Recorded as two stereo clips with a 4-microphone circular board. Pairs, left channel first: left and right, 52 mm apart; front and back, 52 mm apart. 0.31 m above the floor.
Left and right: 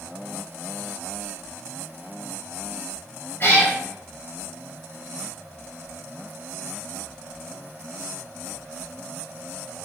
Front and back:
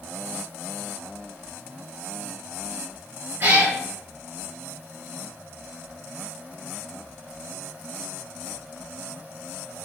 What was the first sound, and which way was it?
A cat meowing, 130° left.